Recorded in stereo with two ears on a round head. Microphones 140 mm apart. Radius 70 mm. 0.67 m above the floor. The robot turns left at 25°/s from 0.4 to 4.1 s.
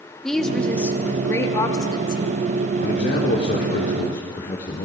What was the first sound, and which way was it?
A woman speaking, 175° left.